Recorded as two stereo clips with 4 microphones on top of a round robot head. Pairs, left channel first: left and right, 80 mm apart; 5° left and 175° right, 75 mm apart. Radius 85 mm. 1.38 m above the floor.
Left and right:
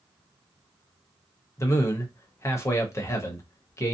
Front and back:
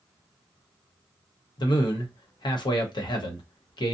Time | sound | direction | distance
1.6 | a man speaking | 35° left | 0.9 m